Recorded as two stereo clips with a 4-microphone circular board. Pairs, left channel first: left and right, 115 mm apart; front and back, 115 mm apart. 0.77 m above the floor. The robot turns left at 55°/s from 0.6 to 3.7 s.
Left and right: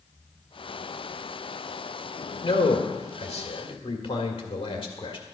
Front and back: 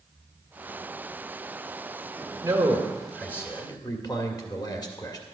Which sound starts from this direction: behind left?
A man speaking, at 2.4 s.